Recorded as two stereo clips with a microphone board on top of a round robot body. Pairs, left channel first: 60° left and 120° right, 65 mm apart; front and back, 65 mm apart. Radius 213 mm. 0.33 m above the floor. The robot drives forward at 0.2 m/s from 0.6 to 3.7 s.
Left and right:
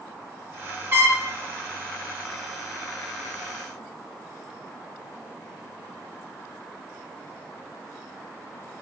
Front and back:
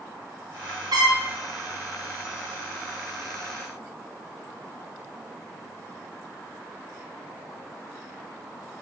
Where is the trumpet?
175° right, 1.0 m.